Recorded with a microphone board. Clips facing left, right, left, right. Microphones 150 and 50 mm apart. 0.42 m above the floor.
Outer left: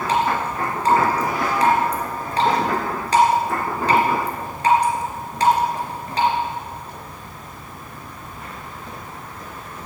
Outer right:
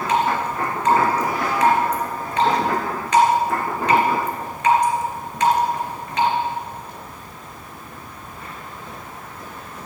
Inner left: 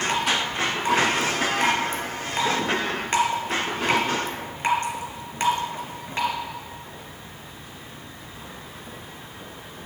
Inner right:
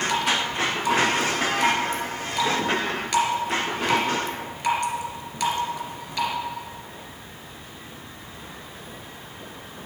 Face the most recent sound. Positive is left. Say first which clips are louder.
# outer right 1 dB, even
turn(degrees=35)  # may be behind; listen again after turning